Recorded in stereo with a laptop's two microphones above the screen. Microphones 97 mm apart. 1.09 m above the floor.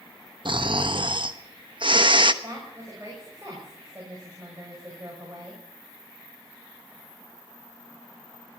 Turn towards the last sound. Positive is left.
turn(degrees=-25)  # may be behind; listen again after turning